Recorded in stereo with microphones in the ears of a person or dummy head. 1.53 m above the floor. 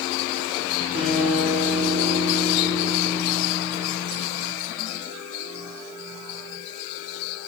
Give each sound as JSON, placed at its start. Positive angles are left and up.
{"t": 0.9, "sound": "a guitar", "side_deg": -30, "distance_m": 0.8}